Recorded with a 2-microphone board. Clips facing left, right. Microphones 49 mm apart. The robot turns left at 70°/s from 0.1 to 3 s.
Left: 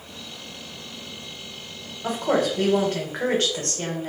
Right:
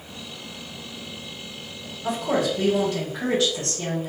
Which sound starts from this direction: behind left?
A woman speaking, at 2.0 s.